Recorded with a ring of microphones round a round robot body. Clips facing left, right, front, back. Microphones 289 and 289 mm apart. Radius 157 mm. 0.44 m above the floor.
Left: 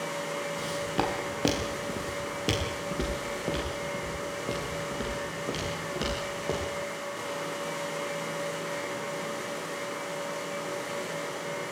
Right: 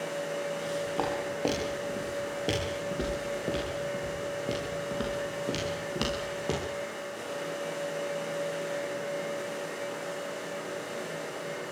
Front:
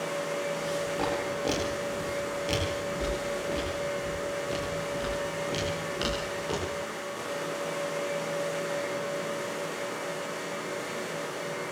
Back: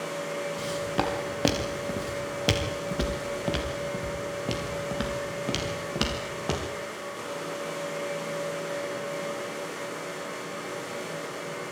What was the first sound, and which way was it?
Footsteps, 145° left.